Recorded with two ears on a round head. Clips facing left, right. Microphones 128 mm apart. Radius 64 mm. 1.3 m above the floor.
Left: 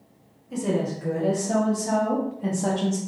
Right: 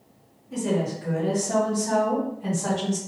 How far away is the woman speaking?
About 1.5 m.